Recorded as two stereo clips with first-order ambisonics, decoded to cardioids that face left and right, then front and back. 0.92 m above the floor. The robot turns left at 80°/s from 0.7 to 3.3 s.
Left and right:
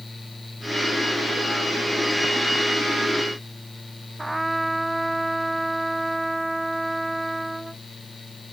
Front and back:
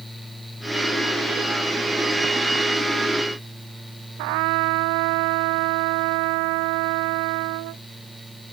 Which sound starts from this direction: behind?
A trumpet, at 4.2 s.